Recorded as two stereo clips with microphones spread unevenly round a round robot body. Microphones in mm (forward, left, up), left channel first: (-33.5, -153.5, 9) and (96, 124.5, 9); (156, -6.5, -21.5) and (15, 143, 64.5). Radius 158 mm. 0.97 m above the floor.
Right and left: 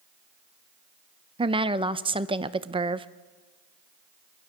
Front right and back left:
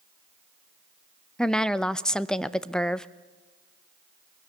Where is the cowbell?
I don't hear a cowbell.